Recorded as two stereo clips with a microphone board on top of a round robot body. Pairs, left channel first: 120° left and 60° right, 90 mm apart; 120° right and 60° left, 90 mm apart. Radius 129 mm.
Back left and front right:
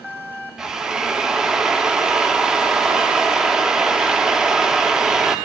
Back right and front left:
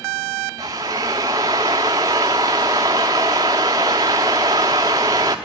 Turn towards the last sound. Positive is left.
turn(degrees=20)